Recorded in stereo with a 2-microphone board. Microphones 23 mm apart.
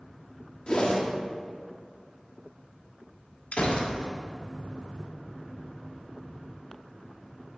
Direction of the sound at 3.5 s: 70° left (ahead or behind).